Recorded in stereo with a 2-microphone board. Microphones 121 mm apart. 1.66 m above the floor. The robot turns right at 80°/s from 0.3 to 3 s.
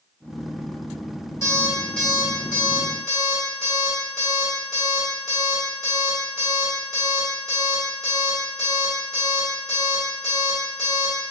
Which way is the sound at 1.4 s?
25° left (ahead or behind).